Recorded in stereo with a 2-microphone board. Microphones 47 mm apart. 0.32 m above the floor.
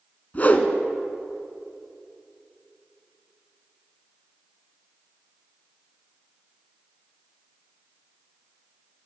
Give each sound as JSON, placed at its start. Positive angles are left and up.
{"t": 0.3, "sound": "a whoosh", "side_deg": 35, "distance_m": 0.6}